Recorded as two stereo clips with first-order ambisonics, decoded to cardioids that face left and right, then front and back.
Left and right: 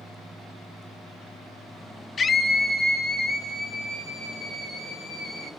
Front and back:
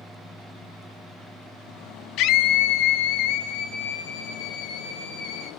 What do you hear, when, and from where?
2.2 s a scream: 25° left, 0.7 m; by 5.5 s 20° right, 5 m